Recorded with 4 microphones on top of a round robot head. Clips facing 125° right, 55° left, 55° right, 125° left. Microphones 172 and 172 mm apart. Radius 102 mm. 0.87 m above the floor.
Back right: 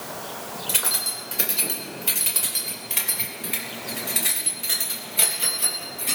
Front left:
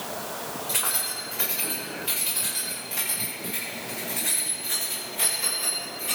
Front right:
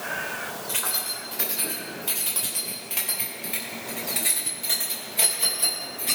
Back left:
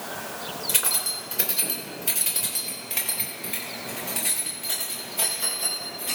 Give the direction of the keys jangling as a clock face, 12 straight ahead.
6 o'clock.